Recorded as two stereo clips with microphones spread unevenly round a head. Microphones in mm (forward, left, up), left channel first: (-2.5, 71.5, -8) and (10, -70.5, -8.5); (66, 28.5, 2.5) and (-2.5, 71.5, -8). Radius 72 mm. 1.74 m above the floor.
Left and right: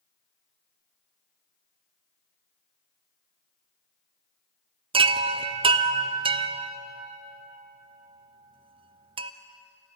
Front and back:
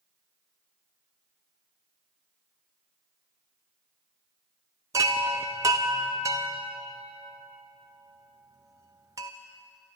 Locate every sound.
4.9 s a chime: 140° right, 0.7 m